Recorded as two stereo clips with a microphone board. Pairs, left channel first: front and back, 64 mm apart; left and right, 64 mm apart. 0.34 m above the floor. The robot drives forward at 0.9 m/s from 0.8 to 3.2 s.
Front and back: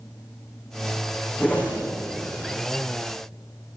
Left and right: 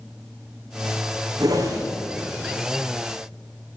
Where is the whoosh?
65° right, 5.5 m; by 1.8 s 70° right, 5 m.